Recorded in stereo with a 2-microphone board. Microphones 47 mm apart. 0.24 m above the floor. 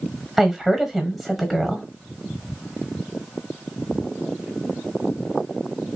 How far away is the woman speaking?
About 1.1 m.